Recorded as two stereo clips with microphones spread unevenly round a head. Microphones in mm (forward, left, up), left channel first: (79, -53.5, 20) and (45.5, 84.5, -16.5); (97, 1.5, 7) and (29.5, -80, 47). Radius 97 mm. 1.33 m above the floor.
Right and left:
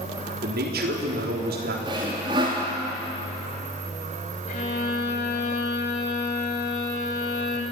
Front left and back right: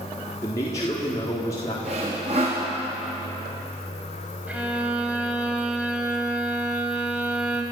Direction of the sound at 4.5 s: 60° right.